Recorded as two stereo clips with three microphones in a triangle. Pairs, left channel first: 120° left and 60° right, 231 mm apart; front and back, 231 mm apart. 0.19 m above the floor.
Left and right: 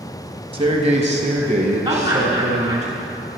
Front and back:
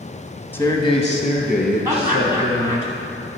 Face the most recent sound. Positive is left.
turn(degrees=-110)